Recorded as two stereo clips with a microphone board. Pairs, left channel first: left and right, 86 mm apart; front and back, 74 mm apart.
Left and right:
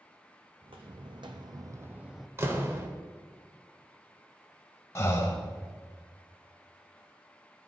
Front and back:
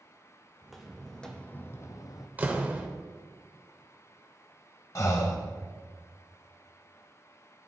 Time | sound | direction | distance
0.6 | footsteps | 90° right | 1.2 m
2.4 | a door slam | 130° right | 0.7 m
5.0 | breathing | 40° left | 0.8 m